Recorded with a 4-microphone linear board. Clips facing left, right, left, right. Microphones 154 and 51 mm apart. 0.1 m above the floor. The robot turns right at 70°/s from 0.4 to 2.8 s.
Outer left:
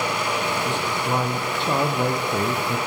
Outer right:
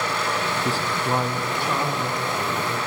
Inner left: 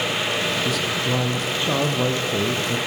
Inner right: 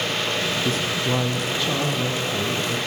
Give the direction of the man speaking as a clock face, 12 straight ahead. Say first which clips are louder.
Even, even; 1 o'clock.